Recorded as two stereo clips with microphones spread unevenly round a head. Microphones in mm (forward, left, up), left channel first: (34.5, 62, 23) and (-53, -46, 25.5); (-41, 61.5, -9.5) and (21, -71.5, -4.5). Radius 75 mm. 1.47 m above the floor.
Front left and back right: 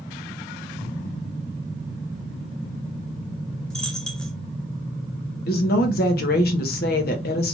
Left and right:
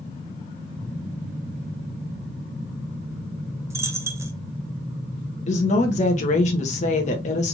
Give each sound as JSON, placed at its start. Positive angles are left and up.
{"t": 3.7, "sound": "a dropped coin", "azimuth_deg": -35, "distance_m": 0.7}
{"t": 5.5, "sound": "a woman speaking", "azimuth_deg": 70, "distance_m": 1.3}